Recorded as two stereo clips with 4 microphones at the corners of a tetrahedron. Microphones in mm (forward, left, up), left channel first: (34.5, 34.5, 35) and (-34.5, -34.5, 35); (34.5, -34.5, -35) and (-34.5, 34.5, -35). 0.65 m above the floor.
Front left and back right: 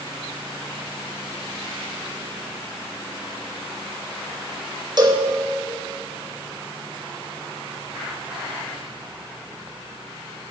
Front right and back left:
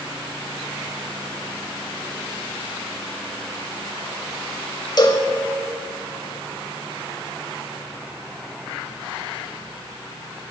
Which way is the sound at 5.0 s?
90° right.